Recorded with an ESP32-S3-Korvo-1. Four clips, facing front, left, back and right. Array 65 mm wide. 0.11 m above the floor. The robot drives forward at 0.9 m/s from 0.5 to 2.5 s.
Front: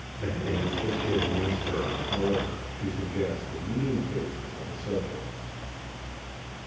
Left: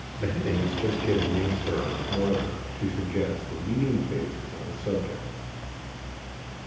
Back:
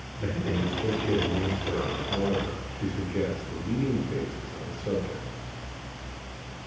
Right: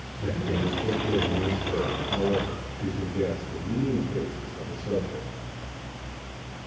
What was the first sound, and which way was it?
A man speaking, 85° left.